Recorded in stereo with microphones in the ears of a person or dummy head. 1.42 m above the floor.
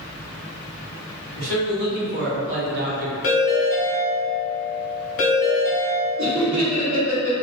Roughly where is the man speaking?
Right.